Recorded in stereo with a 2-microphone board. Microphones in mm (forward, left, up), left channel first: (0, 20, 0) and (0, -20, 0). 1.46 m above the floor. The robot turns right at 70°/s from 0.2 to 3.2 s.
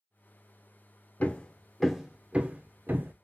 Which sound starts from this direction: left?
Hammering, at 1.2 s.